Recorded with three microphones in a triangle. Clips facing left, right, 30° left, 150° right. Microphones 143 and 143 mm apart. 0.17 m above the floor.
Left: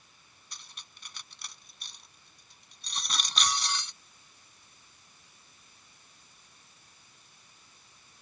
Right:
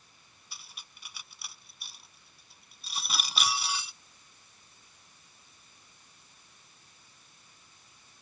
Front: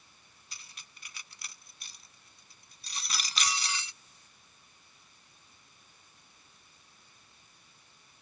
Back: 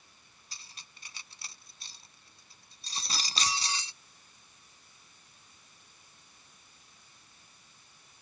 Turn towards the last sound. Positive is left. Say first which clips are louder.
# even, back 1 dB
turn(degrees=-170)